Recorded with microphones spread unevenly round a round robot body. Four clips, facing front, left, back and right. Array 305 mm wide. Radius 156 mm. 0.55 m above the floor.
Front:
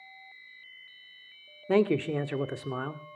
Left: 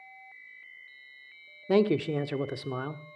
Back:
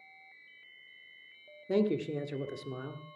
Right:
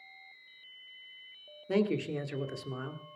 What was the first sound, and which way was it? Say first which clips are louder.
A man speaking: left 6 dB, front 5 dB; 35° left.